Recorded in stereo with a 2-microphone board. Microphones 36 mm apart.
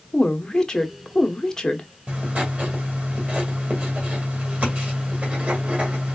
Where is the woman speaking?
20° left (ahead or behind), 0.9 m.